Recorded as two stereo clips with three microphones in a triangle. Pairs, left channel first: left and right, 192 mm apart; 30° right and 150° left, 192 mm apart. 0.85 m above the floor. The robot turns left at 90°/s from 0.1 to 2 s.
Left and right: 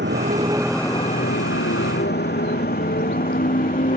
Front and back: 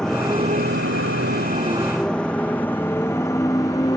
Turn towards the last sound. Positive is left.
turn(degrees=40)